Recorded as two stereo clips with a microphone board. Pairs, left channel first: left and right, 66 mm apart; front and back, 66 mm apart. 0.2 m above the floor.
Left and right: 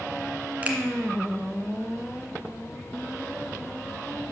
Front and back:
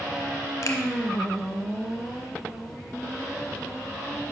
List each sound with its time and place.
0.6 s a finger snap: 25° right, 1.6 m